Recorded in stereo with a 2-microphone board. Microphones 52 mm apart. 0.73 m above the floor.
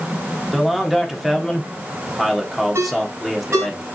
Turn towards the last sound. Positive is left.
turn(degrees=-50)  # may be behind; listen again after turning